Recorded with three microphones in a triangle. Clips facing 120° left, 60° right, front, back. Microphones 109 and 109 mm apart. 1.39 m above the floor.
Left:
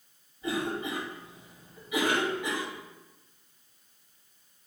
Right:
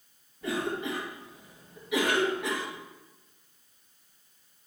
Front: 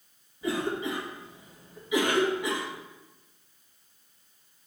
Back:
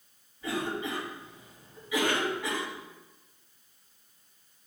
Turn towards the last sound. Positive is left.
turn(degrees=-75)